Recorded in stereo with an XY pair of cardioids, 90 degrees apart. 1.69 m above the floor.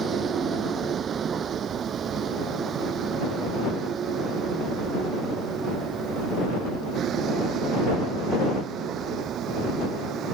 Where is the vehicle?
55° right; by 10.3 s 75° right.